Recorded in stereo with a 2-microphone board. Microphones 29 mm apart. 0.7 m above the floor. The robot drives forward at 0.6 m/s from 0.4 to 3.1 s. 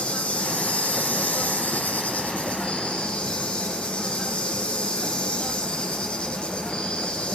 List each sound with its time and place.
0.0 s an insect: 55° left (ahead or behind), 1.1 m; by 7.3 s 40° left (ahead or behind), 1.4 m